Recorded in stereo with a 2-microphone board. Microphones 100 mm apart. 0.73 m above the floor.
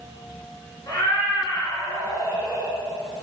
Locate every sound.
0.9 s a cat meowing: 35° left (ahead or behind), 3 m